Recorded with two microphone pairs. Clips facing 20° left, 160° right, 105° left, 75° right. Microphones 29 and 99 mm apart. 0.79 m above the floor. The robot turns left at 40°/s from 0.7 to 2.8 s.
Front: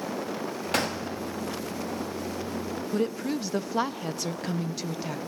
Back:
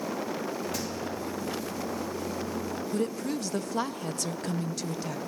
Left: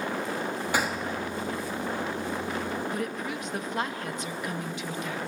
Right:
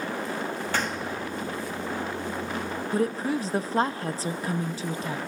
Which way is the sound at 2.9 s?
45° right.